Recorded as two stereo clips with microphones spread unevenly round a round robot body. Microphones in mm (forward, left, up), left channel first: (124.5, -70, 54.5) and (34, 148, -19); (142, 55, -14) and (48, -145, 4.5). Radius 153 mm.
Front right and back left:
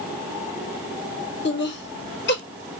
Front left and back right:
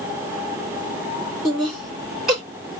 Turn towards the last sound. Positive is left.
turn(degrees=-20)